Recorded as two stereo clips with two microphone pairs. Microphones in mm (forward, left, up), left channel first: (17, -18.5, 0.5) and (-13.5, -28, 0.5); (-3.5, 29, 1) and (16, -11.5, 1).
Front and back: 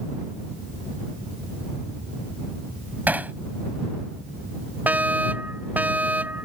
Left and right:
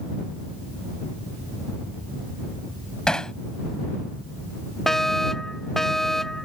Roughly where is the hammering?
Behind.